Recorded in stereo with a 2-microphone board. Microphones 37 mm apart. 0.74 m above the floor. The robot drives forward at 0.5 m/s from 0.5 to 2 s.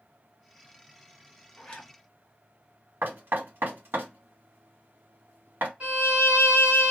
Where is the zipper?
25° left (ahead or behind), 1.4 m.